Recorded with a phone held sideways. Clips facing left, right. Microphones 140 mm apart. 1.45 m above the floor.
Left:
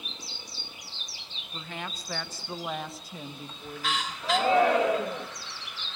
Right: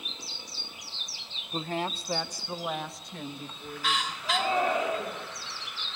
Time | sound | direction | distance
1.5 | a woman speaking | 50° right (ahead or behind) | 1.0 m
4.2 | a shout | 75° left (ahead or behind) | 1.9 m